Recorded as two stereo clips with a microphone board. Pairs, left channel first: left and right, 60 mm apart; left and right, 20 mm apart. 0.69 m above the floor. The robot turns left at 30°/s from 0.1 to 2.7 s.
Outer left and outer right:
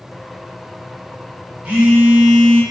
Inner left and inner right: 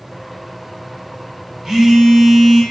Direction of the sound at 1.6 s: 20° right (ahead or behind).